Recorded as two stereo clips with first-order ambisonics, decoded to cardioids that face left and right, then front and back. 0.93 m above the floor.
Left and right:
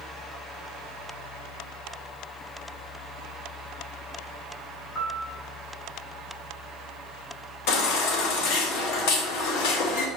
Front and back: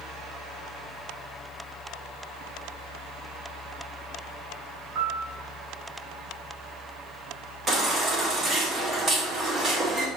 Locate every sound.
5.0 s a piano: 135° left, 3 m
7.7 s a baby crying: 110° left, 1.4 m